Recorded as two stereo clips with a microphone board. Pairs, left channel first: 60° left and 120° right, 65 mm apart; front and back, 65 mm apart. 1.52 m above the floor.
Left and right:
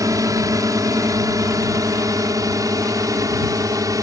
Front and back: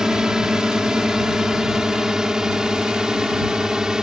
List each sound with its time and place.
0.0 s a drone: 100° right